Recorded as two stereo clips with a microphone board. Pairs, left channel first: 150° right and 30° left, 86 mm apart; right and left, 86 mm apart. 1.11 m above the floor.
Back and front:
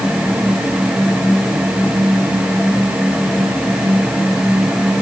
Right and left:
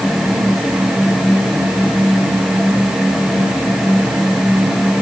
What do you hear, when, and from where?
Only background noise.